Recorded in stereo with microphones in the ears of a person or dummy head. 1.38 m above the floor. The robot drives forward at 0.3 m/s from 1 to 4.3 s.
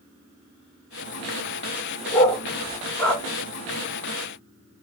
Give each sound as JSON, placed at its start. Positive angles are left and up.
{"t": 2.1, "sound": "a dog barking", "side_deg": 20, "distance_m": 1.3}